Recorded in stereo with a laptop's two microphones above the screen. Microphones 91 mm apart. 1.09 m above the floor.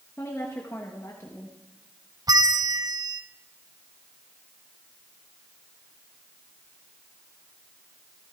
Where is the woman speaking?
30° left (ahead or behind), 1.2 m.